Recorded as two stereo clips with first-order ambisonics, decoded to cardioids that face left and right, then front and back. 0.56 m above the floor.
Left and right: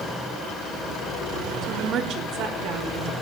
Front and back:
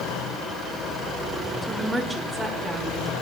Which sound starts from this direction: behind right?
A woman speaking, at 1.6 s.